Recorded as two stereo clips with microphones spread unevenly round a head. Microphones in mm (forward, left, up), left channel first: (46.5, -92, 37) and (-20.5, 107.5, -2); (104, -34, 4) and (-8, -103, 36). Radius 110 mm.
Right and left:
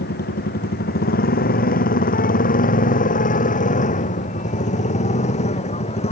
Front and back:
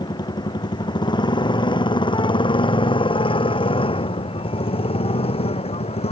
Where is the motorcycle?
25° right; by 6.1 s 10° right.